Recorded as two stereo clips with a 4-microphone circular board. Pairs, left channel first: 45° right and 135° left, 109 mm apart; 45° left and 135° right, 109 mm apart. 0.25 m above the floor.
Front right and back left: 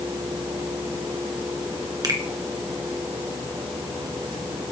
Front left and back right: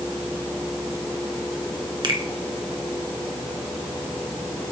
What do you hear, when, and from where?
2.0 s a finger snap: 175° right, 1.9 m